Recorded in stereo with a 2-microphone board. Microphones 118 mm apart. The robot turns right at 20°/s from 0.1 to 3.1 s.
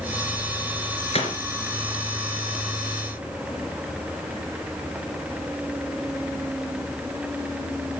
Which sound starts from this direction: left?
A gunshot, at 1.1 s.